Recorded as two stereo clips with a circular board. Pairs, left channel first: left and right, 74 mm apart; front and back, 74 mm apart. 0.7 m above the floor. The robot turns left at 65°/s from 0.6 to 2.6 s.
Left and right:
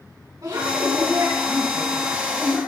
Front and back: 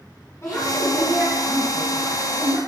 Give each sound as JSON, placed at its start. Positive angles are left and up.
{"t": 0.4, "sound": "a woman speaking", "azimuth_deg": -55, "distance_m": 6.0}